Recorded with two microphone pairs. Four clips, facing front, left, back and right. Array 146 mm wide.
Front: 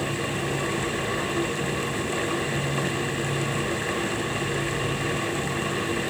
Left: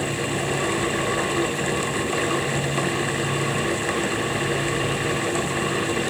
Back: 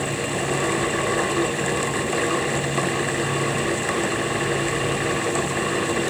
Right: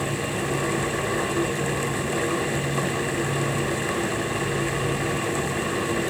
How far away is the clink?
I don't hear a clink.